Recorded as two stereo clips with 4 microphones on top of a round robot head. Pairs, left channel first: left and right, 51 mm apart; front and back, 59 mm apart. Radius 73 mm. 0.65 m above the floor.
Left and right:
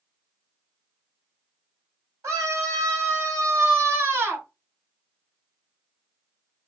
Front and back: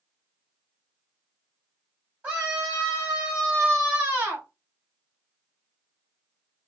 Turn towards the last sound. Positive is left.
turn(degrees=-125)